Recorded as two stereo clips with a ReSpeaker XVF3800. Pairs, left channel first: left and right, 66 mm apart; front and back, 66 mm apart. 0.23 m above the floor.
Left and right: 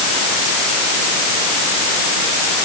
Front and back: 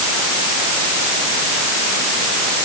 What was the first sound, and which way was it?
Only background noise.